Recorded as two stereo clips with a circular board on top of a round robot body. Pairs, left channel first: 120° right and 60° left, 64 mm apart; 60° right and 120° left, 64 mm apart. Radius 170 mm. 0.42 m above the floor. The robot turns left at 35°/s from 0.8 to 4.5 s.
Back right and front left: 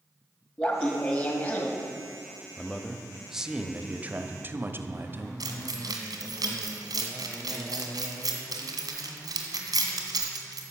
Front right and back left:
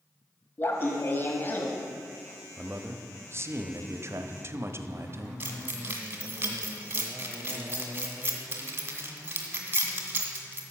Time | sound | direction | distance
0.6 | laughter | 55° right | 1.5 m
2.6 | a man speaking | 165° left | 1.0 m
5.4 | keys jangling | 60° left | 1.8 m